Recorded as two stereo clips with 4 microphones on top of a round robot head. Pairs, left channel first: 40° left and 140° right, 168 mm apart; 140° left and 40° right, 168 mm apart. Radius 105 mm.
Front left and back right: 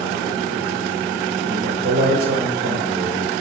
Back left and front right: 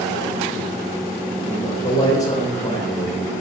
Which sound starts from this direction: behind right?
A man speaking, at 1.5 s.